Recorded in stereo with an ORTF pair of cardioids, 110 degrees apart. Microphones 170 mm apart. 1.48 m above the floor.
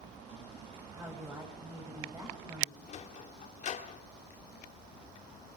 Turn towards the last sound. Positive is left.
turn(degrees=45)